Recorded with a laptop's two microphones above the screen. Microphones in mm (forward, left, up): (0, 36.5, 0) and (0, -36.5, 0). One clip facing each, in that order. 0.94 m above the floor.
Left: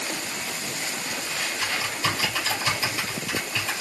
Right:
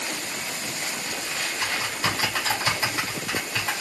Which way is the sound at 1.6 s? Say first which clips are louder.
Even; 55° right (ahead or behind).